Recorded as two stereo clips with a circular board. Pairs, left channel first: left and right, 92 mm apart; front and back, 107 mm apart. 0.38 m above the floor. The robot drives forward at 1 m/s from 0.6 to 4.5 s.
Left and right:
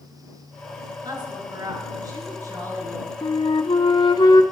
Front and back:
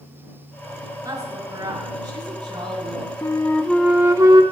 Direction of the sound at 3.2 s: 55° left.